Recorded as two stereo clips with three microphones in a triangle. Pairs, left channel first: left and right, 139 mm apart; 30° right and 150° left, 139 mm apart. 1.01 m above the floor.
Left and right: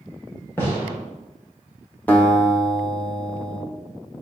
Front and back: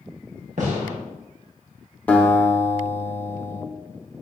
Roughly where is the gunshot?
Behind.